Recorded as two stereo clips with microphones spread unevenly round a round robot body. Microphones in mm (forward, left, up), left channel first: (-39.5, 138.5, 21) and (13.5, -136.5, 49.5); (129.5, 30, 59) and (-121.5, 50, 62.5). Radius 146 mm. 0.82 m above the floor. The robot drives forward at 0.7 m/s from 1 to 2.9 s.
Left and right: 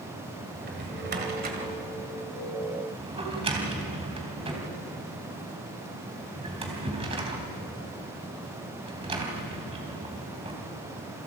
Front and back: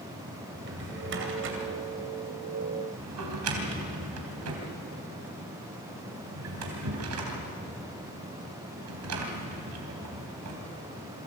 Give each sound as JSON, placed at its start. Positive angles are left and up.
{"t": 0.6, "sound": "a drawer", "azimuth_deg": -135, "distance_m": 2.5}